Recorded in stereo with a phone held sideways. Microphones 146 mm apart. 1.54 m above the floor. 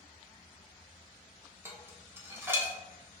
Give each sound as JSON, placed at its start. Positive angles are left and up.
{"t": 1.6, "sound": "dishes clattering", "side_deg": -15, "distance_m": 0.5}